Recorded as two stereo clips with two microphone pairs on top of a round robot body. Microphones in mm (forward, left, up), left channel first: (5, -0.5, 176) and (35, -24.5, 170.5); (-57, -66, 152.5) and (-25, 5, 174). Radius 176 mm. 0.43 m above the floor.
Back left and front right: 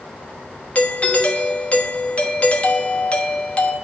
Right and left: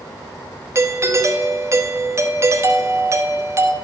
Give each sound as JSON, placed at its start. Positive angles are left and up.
{"t": 0.8, "sound": "a doorbell", "azimuth_deg": 110, "distance_m": 1.2}